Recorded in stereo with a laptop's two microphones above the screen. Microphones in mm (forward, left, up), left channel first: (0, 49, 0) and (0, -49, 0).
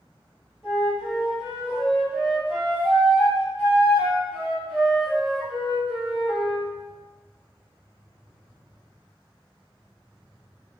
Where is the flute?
10° right (ahead or behind), 2.5 m.